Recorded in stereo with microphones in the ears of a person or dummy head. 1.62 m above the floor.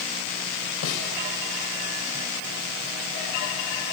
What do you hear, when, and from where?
0.8 s a snare drum: 75° left (ahead or behind), 4.5 m